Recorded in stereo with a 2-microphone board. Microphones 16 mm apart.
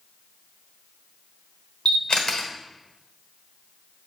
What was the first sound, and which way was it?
A camera shutter, 70° left (ahead or behind).